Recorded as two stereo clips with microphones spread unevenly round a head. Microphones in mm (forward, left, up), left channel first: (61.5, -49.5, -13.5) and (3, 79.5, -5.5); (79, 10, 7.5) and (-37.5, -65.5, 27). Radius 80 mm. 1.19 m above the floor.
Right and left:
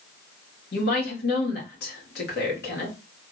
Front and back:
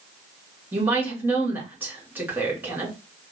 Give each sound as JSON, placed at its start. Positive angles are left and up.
{"t": 0.7, "sound": "a woman speaking", "azimuth_deg": -70, "distance_m": 2.0}